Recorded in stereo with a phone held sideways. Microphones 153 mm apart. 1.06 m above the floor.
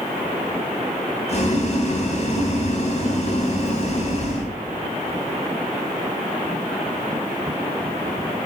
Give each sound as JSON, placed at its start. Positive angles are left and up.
{"t": 1.3, "sound": "boiling", "side_deg": 50, "distance_m": 3.5}